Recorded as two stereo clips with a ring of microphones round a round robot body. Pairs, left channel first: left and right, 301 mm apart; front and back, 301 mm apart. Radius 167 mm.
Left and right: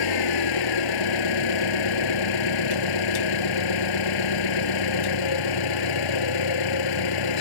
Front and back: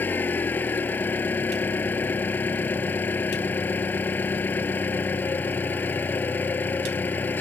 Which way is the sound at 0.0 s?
85° left.